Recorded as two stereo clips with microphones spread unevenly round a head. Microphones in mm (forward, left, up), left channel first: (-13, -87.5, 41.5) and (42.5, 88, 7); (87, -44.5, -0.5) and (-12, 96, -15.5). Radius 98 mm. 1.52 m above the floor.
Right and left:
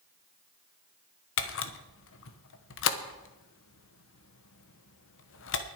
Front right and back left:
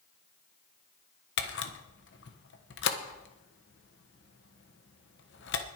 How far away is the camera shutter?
About 1.2 m.